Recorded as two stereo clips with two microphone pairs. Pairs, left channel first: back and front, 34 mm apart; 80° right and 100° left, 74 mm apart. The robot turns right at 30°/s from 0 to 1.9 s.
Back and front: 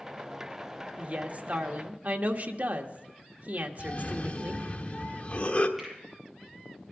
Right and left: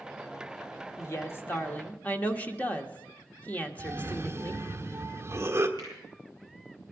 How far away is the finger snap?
About 8.5 m.